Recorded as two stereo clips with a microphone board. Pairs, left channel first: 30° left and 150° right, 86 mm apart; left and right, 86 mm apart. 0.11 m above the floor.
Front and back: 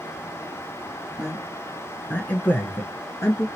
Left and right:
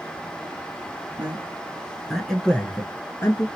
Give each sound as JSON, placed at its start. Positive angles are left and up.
{"t": 1.2, "sound": "a man speaking", "azimuth_deg": -75, "distance_m": 1.4}